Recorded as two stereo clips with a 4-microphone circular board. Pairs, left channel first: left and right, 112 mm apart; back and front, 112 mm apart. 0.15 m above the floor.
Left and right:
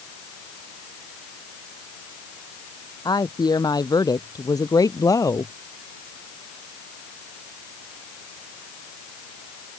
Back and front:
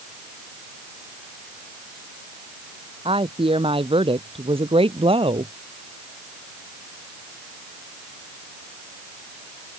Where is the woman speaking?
35° left; by 5.5 s 30° left.